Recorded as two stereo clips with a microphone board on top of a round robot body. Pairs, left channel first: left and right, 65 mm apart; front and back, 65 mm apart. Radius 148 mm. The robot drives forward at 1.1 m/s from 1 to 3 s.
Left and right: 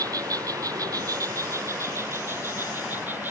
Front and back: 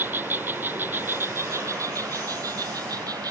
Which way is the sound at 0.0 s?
120° right.